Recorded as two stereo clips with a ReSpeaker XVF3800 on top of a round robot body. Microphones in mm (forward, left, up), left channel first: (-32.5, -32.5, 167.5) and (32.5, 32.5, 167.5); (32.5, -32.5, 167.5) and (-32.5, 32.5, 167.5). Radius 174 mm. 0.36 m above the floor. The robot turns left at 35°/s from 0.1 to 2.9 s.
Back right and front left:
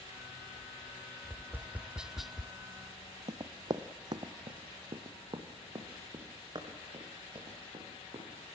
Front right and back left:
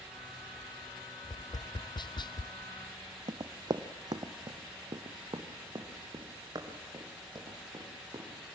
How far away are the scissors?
I don't hear scissors.